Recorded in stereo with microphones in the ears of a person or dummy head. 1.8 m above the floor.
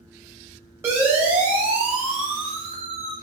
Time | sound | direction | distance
0.8 | a siren | 10° right (ahead or behind) | 8 m